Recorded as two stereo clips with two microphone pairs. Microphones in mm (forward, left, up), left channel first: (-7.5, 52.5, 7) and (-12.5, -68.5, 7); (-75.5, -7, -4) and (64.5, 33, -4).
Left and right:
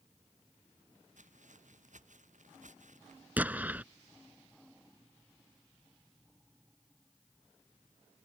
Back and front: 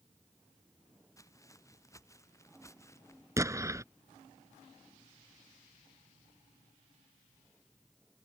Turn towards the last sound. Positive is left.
turn(degrees=-30)